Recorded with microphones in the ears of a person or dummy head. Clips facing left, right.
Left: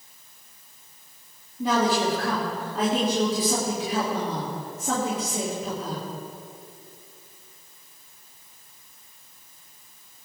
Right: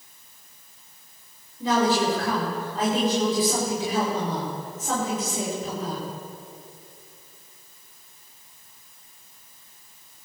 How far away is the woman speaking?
About 4 m.